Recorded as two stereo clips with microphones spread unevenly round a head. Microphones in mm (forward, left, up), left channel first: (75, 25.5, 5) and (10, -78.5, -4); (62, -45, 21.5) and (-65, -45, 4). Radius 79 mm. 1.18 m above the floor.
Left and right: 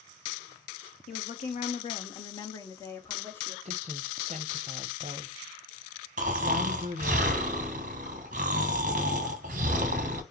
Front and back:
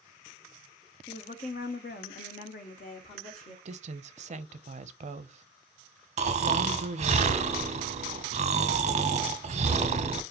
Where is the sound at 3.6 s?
165° right, 0.6 m.